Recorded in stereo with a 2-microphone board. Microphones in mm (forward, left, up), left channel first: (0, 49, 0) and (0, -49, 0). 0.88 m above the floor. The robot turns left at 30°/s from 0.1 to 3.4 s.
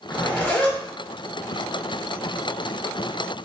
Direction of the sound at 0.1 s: 25° left (ahead or behind).